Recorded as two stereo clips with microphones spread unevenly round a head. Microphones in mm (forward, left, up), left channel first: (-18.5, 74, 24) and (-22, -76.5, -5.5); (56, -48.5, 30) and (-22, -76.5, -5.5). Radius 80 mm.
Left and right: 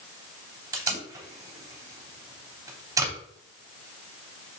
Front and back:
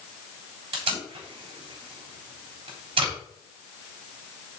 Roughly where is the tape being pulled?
Behind.